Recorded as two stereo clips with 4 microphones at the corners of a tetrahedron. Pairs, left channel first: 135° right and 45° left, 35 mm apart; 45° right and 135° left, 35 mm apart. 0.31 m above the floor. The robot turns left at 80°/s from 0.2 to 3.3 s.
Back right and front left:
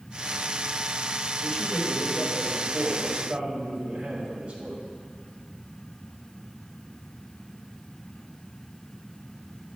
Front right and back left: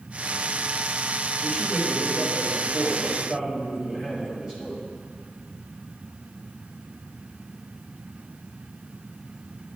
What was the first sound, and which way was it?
A man speaking, 120° right.